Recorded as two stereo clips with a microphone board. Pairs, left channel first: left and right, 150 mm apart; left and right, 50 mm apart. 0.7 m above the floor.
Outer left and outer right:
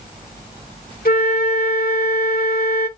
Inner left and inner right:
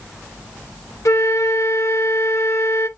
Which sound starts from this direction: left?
A flute, at 1.1 s.